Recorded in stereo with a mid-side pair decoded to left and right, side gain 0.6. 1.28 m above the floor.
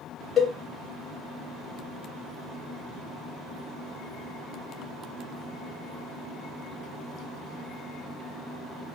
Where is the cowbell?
40° left, 1.6 m.